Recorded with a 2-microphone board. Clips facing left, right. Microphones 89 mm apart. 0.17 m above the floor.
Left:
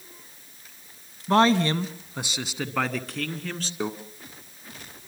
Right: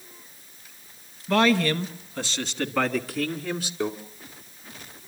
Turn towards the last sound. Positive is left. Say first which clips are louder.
# right 2 dB
turn(degrees=10)  # may be behind; listen again after turning